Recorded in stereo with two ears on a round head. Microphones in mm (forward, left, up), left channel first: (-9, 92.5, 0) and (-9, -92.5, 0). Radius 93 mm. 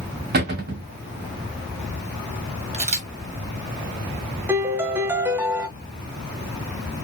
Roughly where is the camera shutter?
Right.